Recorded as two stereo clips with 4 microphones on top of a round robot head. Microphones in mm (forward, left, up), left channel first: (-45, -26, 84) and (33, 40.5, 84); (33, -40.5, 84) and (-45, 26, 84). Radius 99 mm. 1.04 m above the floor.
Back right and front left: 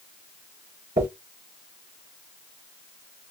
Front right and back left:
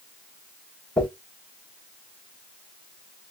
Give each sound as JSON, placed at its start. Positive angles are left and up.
{"t": 1.0, "sound": "a dropped coin", "azimuth_deg": 20, "distance_m": 1.8}